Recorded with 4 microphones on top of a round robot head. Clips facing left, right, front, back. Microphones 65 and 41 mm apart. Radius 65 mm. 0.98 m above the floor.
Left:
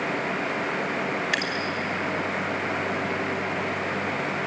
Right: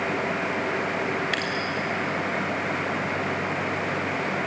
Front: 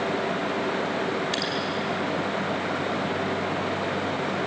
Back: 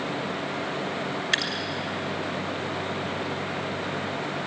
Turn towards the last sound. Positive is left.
turn(degrees=170)